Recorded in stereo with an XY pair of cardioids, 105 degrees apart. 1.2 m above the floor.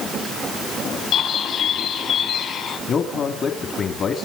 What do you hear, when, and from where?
1.1 s a bird: 70° left, 6.5 m
2.9 s a man speaking: 55° left, 2.5 m